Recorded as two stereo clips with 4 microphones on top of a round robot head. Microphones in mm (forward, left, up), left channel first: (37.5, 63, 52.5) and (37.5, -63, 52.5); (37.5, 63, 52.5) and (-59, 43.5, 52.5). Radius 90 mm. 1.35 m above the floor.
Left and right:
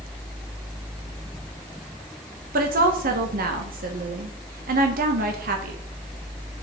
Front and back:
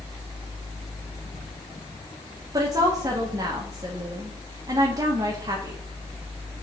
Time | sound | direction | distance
2.5 | a woman speaking | 100° right | 1.2 m